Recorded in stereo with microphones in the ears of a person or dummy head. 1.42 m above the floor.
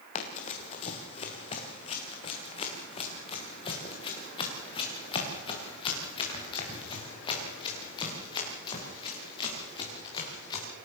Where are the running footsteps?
40° left (ahead or behind), 3 m; by 10.7 s 25° left (ahead or behind), 9.5 m.